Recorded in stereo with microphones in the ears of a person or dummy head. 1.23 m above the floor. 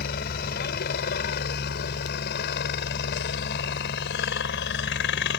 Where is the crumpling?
No crumpling in this recording.